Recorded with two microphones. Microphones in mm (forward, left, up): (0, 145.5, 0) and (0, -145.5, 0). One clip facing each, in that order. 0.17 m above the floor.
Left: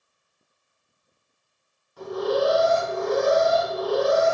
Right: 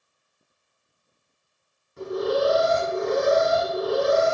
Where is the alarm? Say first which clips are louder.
Even; 25° right (ahead or behind), 2 m.